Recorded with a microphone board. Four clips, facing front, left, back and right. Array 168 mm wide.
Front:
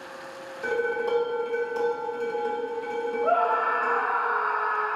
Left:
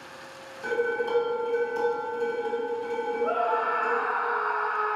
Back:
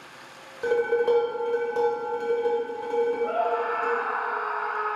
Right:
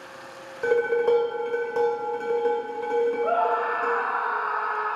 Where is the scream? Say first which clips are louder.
Right 2 dB, front 2 dB; 40° right, 0.7 m.